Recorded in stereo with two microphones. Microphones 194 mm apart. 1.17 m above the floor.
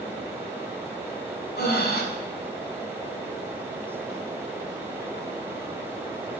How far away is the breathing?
About 1.7 m.